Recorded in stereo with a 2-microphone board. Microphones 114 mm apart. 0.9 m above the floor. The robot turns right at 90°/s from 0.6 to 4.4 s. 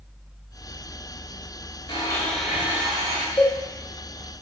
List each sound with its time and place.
1.9 s a blender: 130° left, 1.4 m; by 3.3 s 105° right, 1.4 m
3.4 s a cowbell: 25° left (ahead or behind), 2.5 m; by 3.6 s 40° left (ahead or behind), 2.5 m